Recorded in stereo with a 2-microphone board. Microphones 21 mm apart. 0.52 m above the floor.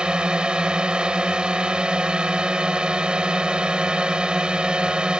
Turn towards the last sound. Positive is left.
turn(degrees=-50)  # may be behind; listen again after turning